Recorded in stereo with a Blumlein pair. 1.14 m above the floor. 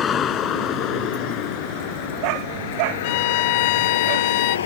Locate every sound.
0.0 s a vehicle: 25° left; by 4.7 s 65° left
3.0 s a violin: 45° left